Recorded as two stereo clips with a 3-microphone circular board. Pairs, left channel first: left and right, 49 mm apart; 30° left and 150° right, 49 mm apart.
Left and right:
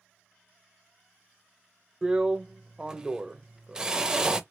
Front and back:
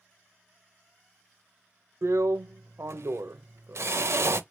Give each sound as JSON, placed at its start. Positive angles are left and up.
{"t": 2.0, "sound": "a drill", "azimuth_deg": -165, "distance_m": 0.5}